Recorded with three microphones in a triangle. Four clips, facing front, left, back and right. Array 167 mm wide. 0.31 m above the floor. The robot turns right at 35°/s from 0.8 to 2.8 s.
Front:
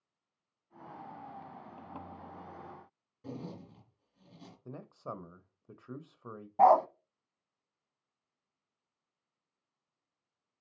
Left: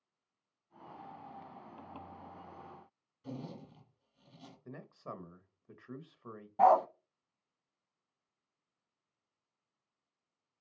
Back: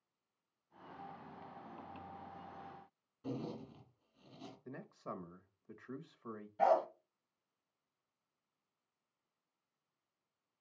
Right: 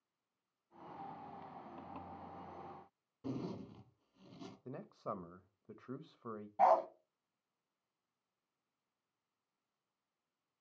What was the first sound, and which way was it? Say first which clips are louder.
A zipper: right 2 dB, back 1 dB; 80° right.